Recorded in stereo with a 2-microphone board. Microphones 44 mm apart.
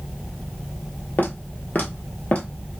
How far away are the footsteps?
About 1.3 m.